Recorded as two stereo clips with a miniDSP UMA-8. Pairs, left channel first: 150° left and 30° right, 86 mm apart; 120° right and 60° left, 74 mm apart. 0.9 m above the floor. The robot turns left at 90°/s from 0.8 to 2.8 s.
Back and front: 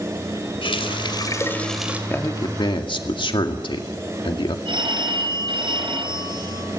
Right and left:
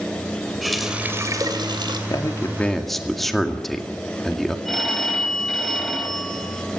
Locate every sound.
0.6 s a running tap: 150° left, 3 m; by 2.0 s 40° left, 3 m
2.1 s a man speaking: 145° right, 1.9 m; by 4.5 s 150° left, 1.9 m
4.7 s a phone ringing: 35° right, 4.5 m